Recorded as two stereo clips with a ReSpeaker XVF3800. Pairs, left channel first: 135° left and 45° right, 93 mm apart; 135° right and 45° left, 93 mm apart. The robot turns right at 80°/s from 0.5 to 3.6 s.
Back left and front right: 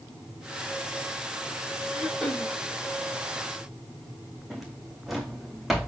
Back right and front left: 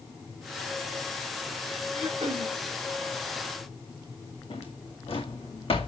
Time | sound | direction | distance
1.9 | throat clearing | 30° left | 3 m
4.5 | a drawer | 135° right | 2.5 m